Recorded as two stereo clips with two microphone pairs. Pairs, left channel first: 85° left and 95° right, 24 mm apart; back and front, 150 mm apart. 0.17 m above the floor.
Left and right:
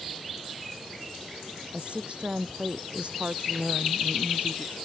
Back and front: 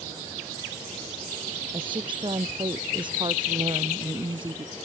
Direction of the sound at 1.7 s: 55° right.